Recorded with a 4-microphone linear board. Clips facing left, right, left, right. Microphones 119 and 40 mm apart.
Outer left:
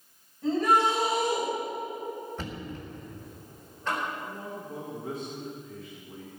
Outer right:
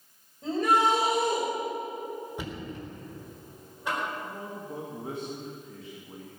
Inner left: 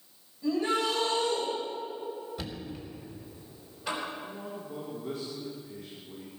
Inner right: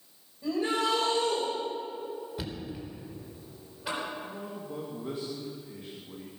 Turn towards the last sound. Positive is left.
turn(degrees=-25)  # may be behind; listen again after turning